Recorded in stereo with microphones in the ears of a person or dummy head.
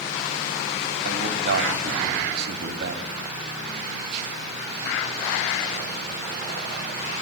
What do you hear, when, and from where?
1.1 s a man speaking: 60° right (ahead or behind), 2.5 m